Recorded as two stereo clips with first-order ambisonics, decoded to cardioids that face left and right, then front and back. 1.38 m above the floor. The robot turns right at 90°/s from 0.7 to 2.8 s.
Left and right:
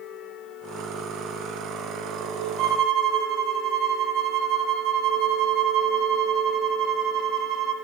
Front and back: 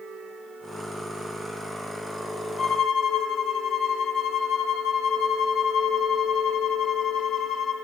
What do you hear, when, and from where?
2.6 s a violin: 75° right, 1.2 m; by 7.7 s 55° right, 1.2 m